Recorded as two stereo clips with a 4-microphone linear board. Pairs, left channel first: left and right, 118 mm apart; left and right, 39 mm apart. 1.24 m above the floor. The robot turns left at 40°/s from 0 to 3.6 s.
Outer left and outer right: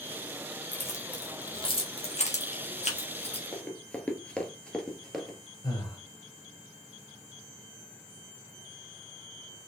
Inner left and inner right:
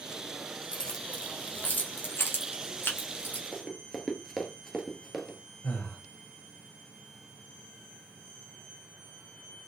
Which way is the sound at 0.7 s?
15° left (ahead or behind).